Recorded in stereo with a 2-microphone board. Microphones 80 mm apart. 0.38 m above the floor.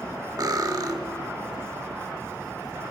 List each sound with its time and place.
0.4 s cutlery clinking: 50° right (ahead or behind), 1.2 m